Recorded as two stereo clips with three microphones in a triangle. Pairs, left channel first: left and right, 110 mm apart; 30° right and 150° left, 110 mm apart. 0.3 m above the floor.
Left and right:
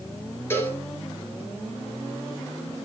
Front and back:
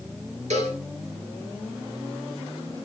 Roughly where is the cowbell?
Behind.